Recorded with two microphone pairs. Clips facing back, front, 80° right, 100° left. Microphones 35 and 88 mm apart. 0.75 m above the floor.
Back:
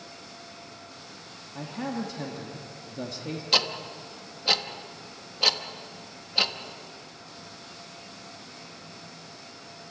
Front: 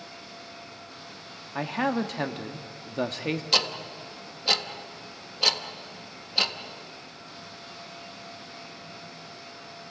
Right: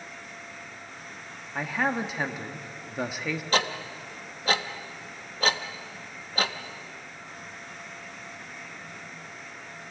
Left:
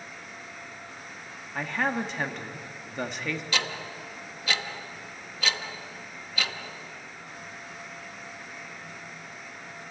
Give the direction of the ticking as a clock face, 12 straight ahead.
3 o'clock.